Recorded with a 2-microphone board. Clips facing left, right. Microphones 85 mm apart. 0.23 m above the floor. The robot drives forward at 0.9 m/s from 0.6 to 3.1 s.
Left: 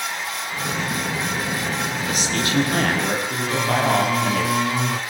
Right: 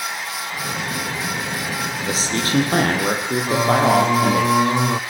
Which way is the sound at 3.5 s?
25° right (ahead or behind).